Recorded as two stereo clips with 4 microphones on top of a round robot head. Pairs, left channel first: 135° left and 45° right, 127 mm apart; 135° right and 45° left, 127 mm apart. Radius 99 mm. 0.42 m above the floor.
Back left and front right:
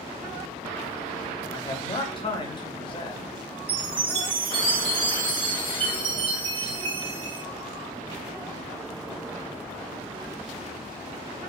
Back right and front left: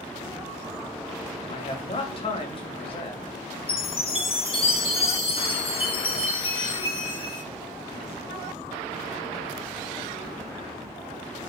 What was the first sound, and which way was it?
A man speaking, straight behind.